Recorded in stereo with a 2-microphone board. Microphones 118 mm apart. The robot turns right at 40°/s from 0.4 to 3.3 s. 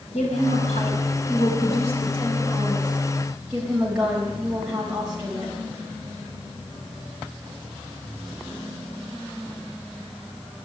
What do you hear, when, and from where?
0.1 s a woman speaking: 70° left, 4 m; by 5.5 s 175° right, 4 m